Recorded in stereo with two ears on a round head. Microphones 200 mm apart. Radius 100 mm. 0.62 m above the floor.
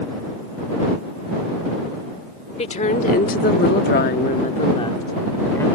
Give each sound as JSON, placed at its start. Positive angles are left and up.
{"t": 2.6, "sound": "a woman speaking", "side_deg": 30}